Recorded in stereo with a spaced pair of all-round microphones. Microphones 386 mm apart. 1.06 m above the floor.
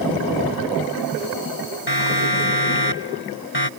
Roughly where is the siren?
Left.